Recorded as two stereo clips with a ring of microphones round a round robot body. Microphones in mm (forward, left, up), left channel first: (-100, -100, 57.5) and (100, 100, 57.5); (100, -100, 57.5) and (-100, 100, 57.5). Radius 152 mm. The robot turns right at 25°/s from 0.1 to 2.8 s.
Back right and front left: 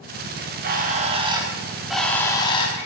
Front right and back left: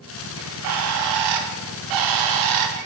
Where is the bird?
95° left, 0.6 m; by 2.9 s 155° left, 0.6 m.